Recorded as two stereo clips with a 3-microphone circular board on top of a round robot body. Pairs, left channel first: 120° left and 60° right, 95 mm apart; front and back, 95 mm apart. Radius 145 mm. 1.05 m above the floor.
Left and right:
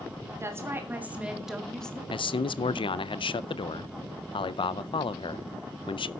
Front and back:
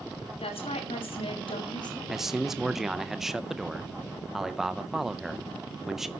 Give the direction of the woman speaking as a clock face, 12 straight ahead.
12 o'clock.